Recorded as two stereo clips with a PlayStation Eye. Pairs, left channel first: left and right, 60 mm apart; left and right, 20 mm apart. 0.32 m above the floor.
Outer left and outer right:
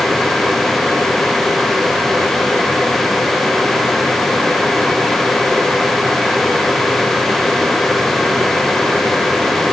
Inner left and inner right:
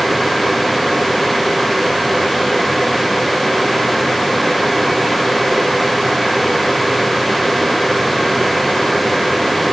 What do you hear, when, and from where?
Only background noise.